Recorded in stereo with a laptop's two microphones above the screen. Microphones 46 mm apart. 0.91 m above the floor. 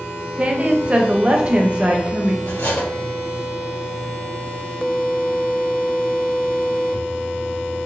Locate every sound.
0.4 s a woman speaking: 25° right (ahead or behind), 0.6 m
2.5 s cutlery clinking: 80° left, 1.6 m